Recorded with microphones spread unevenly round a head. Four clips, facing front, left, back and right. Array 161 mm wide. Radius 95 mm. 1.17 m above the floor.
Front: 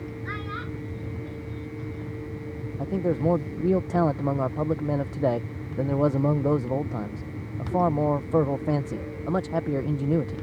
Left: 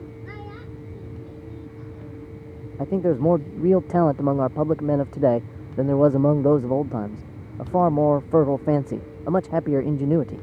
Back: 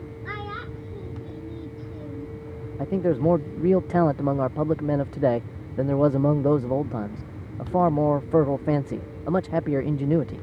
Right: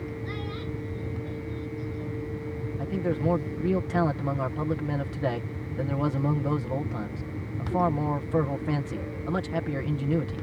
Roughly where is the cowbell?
No cowbell in this recording.